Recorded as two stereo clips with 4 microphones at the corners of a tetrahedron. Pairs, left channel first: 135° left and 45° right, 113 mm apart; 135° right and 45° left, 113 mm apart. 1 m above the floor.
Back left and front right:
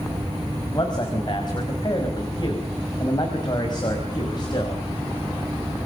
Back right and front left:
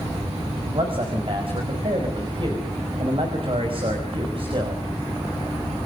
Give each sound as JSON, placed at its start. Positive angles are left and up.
{"t": 0.7, "sound": "a man speaking", "azimuth_deg": 85, "distance_m": 5.0}